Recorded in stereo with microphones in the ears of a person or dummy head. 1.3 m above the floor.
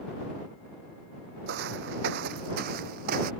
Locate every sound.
1.5 s footsteps: 60° right (ahead or behind); by 3.3 s 50° right (ahead or behind)